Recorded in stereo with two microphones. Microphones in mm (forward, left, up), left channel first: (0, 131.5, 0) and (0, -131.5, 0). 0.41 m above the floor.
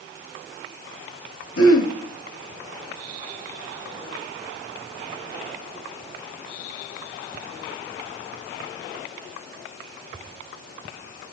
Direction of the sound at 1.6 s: 65° left (ahead or behind).